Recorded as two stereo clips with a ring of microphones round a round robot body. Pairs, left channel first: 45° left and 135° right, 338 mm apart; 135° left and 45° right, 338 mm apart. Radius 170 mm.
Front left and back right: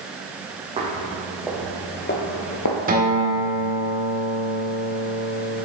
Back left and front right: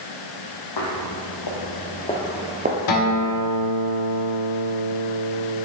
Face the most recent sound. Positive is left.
turn(degrees=160)